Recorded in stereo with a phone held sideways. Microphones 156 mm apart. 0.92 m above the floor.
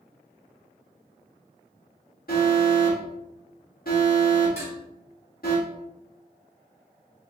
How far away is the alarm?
About 1.8 m.